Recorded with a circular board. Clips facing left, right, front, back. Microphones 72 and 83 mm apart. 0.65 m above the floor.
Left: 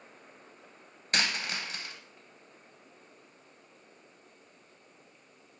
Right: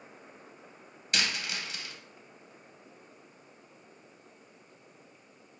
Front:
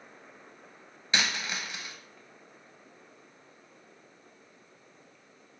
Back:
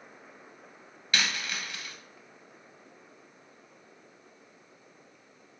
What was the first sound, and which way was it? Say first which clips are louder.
A dropped coin: left 2 dB, front 1 dB; 55° left.